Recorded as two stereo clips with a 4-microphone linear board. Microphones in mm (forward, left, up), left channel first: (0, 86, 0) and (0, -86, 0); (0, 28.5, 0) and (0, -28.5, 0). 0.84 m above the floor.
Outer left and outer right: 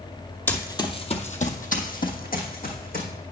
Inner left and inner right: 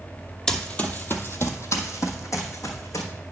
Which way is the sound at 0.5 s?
10° left (ahead or behind).